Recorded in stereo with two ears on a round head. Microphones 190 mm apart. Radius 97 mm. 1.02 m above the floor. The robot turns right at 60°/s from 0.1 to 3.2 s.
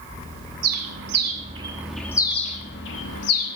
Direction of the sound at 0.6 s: 75° right (ahead or behind).